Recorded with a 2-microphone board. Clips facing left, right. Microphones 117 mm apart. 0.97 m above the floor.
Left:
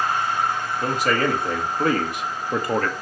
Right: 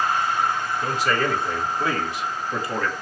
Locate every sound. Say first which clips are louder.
0.8 s a man speaking: left 3 dB; 50° left (ahead or behind), 2.5 m